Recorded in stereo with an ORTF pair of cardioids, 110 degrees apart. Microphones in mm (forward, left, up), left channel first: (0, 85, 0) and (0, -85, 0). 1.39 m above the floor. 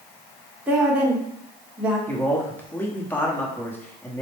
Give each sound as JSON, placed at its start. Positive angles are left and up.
{"t": 0.7, "sound": "a woman speaking", "azimuth_deg": -5, "distance_m": 1.1}
{"t": 2.1, "sound": "a man speaking", "azimuth_deg": 10, "distance_m": 1.0}